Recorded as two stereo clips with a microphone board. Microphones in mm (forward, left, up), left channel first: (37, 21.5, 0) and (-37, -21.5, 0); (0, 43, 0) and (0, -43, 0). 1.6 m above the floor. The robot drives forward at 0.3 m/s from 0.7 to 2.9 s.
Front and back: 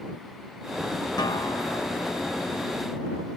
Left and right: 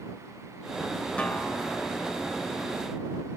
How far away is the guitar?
About 1.1 m.